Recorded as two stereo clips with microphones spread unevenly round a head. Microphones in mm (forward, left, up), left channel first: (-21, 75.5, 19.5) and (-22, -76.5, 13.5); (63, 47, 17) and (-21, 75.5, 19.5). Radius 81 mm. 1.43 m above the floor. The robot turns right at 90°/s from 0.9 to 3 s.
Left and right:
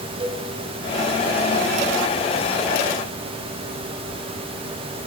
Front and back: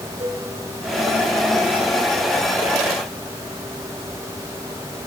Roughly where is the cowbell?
Behind right.